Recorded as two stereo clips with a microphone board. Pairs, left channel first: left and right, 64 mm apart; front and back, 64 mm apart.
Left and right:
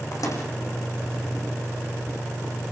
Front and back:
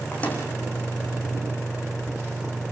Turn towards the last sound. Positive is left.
turn(degrees=65)